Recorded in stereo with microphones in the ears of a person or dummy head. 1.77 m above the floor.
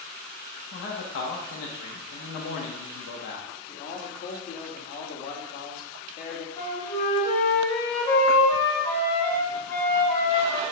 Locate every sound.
0.7 s a man speaking: 70° left (ahead or behind), 0.6 m
3.7 s a man speaking: 55° left (ahead or behind), 1.2 m
6.6 s a flute: 25° left (ahead or behind), 1.4 m